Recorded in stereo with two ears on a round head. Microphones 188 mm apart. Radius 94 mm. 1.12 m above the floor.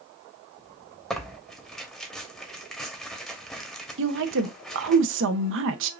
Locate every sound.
1.1 s tearing paper: centre (ahead or behind), 0.9 m
4.0 s a woman speaking: 60° right (ahead or behind), 0.7 m